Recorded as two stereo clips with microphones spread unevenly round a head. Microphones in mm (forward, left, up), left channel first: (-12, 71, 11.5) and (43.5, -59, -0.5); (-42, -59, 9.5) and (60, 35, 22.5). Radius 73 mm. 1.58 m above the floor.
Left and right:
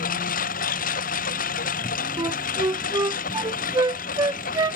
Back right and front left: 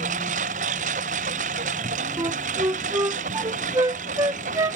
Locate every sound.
0.0 s a lawn mower: 85° left
2.2 s a flute: 5° right